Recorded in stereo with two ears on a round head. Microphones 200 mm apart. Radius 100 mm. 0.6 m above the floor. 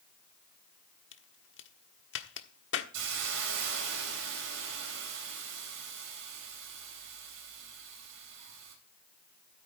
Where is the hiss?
65° right (ahead or behind), 3.5 m.